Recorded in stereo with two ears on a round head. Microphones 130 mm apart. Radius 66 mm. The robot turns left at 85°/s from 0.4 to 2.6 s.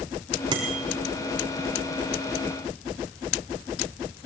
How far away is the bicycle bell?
About 4.5 m.